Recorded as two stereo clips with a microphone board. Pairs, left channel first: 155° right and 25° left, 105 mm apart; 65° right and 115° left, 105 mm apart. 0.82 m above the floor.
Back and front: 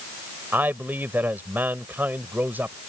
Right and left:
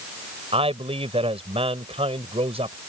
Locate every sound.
0.5 s a man speaking: 95° left